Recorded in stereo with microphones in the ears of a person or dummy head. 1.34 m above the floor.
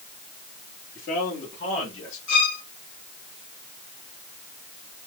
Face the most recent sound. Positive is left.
turn(degrees=75)  # may be behind; listen again after turning